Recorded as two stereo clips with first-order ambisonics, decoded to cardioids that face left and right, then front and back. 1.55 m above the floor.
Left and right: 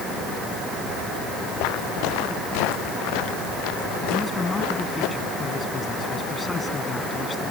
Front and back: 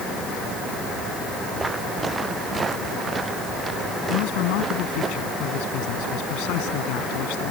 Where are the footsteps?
105° left; by 5.1 s 110° left.